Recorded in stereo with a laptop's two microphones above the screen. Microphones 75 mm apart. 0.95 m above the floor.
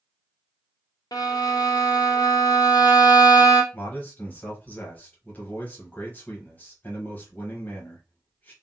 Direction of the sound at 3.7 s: 25° left (ahead or behind).